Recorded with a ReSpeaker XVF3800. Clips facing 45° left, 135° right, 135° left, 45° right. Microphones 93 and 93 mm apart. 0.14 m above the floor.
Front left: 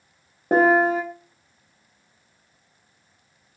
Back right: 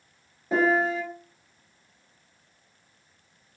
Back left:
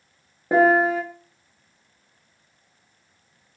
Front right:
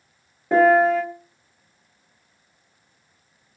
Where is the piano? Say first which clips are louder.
Front left 6 dB, front right 2 dB; 65° left, 0.7 m.